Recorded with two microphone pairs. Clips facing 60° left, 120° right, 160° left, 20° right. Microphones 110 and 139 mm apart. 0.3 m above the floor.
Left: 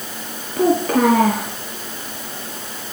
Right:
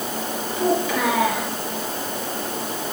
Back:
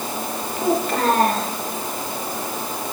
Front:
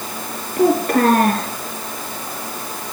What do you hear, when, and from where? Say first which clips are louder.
0.6 s a child speaking: left 6 dB, front 6 dB; 15° left, 3 m